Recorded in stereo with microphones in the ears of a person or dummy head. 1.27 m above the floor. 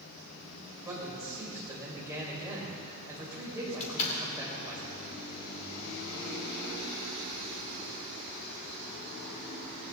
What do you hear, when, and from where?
0.8 s a man speaking: 20° right (ahead or behind), 5.5 m
3.8 s a door slam: 40° left (ahead or behind), 2.5 m